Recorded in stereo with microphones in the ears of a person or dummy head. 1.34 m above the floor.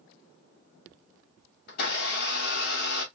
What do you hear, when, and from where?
1.7 s a blender: 60° left (ahead or behind), 2.0 m